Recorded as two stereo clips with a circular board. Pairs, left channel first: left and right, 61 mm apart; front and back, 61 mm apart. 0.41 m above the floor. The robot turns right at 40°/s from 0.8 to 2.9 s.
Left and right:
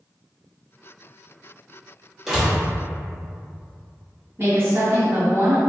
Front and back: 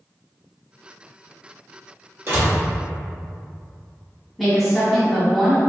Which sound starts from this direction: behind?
A door slam, at 2.3 s.